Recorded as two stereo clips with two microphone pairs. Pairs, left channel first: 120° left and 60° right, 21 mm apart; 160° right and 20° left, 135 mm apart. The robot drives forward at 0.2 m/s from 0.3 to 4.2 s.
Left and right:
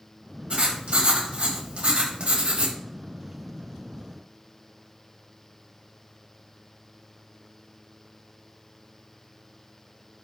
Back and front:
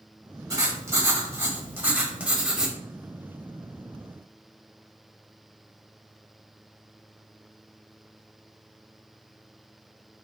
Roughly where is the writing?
Ahead right.